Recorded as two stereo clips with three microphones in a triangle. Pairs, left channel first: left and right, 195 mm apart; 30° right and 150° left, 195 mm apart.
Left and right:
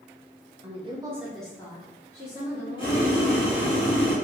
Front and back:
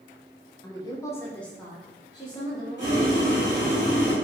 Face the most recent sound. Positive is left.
turn(degrees=150)